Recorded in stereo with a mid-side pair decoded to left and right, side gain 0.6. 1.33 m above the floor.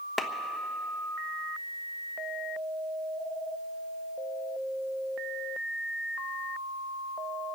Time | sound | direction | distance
0.2 | a clap | 10° left | 1.1 m